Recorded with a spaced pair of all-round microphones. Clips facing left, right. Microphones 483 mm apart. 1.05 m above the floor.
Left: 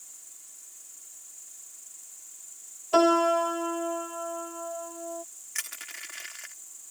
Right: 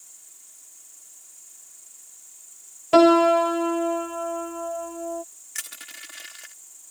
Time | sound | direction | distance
0.0 | an insect | 35° left (ahead or behind) | ?
2.9 | a piano | 85° right | ?
5.5 | crushing | 55° right (ahead or behind) | ?